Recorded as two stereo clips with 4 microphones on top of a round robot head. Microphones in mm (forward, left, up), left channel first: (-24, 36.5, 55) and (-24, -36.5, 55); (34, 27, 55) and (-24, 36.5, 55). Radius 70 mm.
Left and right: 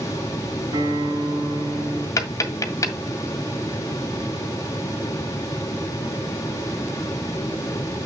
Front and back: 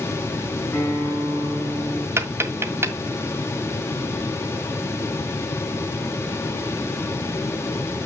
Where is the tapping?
130° left, 1.9 m.